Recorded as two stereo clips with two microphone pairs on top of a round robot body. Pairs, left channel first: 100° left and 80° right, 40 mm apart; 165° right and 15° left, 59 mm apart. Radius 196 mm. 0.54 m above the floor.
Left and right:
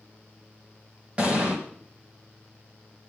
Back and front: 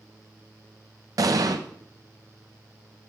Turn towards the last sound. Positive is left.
turn(degrees=-15)